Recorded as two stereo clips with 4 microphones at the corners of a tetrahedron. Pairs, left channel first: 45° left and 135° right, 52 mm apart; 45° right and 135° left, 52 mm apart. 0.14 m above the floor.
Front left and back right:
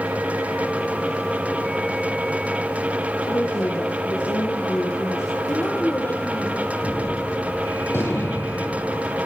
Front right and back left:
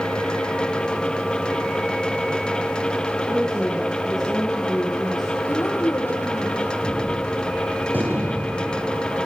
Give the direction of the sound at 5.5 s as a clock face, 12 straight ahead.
12 o'clock.